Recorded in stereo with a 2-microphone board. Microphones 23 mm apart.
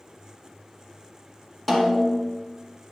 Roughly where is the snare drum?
Centre.